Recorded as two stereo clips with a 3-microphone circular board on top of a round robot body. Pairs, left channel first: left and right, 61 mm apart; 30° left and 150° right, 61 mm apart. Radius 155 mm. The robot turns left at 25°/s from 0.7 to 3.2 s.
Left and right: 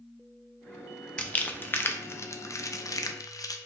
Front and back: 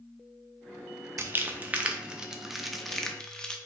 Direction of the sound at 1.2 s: 160° left.